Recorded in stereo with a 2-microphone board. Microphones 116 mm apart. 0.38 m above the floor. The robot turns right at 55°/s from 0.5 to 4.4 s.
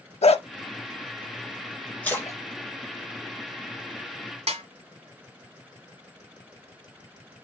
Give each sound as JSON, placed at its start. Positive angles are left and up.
{"t": 0.2, "sound": "a dog barking", "side_deg": 60, "distance_m": 0.5}
{"t": 2.0, "sound": "a splash", "side_deg": 10, "distance_m": 2.5}
{"t": 4.5, "sound": "a snare drum", "side_deg": -65, "distance_m": 1.3}